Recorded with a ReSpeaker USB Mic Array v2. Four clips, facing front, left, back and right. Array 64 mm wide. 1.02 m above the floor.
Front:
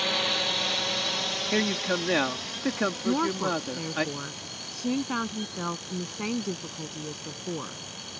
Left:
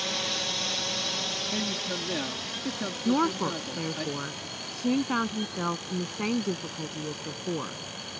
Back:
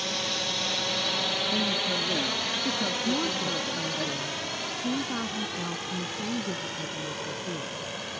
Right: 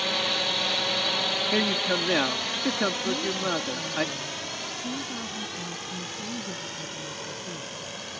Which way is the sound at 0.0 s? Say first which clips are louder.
Right 5 dB, front 3 dB; 40° right.